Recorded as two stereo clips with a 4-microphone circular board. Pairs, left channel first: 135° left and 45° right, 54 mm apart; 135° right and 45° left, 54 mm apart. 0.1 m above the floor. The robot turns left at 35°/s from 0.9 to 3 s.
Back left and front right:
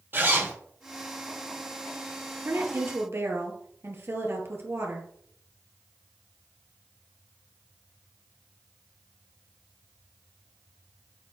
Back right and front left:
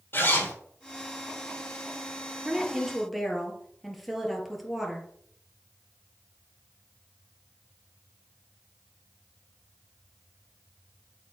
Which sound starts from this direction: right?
A zipper, at 0.1 s.